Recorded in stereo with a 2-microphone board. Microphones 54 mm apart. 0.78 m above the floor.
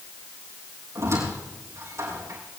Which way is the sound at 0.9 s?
65° right (ahead or behind).